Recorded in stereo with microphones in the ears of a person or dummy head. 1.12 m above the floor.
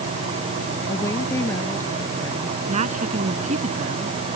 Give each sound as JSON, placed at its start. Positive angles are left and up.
{"t": 0.9, "sound": "a woman speaking", "side_deg": 20}
{"t": 2.7, "sound": "a woman speaking", "side_deg": -45}